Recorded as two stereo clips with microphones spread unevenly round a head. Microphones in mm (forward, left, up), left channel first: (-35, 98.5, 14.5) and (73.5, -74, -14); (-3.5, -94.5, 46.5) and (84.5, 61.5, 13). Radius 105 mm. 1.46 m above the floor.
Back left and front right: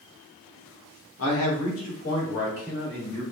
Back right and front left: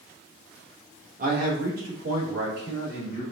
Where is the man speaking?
115° left, 1.2 m; by 3.2 s 95° left, 3 m.